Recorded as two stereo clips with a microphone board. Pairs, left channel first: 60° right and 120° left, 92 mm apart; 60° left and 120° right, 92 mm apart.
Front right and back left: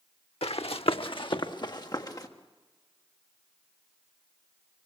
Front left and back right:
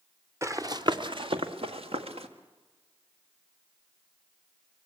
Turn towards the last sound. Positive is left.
turn(degrees=-110)